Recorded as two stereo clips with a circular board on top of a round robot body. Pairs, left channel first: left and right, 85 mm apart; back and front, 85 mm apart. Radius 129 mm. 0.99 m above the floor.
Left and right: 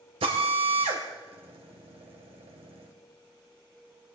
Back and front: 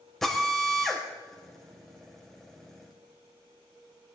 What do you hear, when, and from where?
0.2 s a drill: 95° right, 2.5 m